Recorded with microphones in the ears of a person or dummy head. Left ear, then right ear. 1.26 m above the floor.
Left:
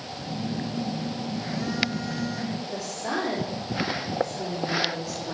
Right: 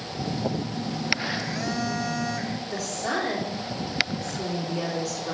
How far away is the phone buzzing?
About 0.7 m.